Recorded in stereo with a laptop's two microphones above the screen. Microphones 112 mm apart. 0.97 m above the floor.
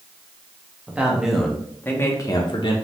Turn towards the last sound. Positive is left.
turn(degrees=50)  # may be behind; listen again after turning